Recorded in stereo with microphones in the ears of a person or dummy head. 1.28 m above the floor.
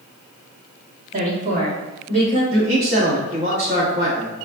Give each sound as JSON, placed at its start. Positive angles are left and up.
{"t": 1.1, "sound": "a woman speaking", "side_deg": -30, "distance_m": 1.2}
{"t": 2.5, "sound": "a man speaking", "side_deg": -30, "distance_m": 0.8}